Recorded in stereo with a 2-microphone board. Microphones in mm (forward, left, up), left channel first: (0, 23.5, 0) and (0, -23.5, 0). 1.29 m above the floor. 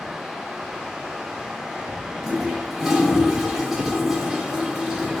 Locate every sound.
2.2 s a toilet flushing: 5° right (ahead or behind), 0.6 m